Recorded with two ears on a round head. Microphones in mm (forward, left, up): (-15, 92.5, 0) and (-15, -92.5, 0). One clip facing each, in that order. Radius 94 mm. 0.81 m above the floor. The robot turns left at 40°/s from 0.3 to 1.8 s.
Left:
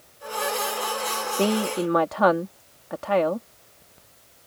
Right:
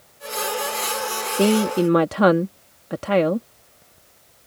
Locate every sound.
1.3 s a woman speaking: 15° right (ahead or behind); by 3.5 s 35° right (ahead or behind)